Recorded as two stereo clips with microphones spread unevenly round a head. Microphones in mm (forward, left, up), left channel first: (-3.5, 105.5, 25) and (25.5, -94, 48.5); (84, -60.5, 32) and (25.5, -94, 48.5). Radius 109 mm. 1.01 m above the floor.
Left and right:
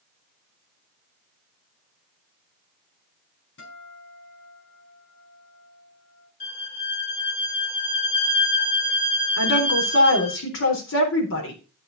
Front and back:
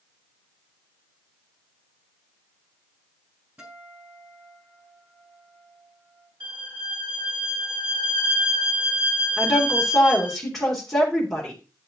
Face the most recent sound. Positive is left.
turn(degrees=115)